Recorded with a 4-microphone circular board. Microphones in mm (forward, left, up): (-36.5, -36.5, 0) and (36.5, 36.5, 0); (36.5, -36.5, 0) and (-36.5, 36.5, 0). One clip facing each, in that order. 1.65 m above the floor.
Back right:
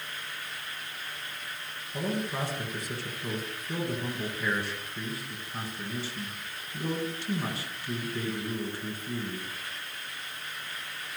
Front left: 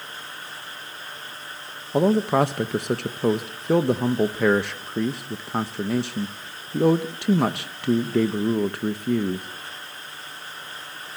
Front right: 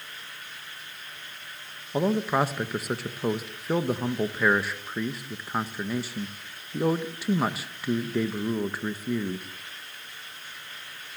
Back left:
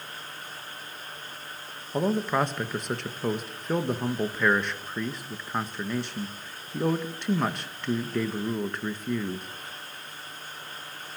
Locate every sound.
1.9 s a man speaking: 40° left, 1.6 m